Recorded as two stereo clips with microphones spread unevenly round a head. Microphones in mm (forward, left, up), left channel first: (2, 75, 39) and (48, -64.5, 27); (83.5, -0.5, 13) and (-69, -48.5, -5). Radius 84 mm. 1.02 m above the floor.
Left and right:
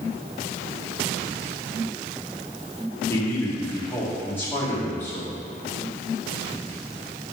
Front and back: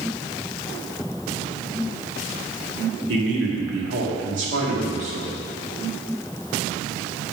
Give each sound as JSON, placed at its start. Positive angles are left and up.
{"t": 3.1, "sound": "a man speaking", "azimuth_deg": -175, "distance_m": 1.7}